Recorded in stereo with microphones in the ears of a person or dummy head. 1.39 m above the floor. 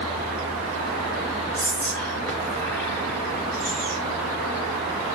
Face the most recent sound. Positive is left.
turn(degrees=15)  # may be behind; listen again after turning